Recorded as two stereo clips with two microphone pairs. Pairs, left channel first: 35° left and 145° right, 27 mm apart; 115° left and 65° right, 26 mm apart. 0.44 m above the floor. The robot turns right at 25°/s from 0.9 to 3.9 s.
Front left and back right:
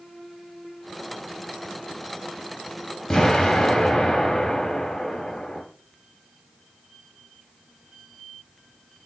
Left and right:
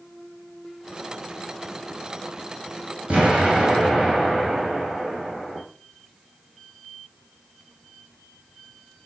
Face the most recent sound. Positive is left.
turn(degrees=-15)